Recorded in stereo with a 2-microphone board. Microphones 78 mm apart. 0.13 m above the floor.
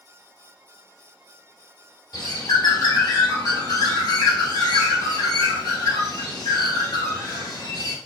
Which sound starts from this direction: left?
A bird, at 2.1 s.